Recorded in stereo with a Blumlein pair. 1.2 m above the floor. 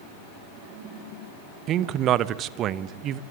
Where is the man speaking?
30° right, 1.0 m.